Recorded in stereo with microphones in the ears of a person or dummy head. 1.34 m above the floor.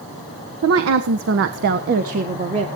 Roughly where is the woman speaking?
Right.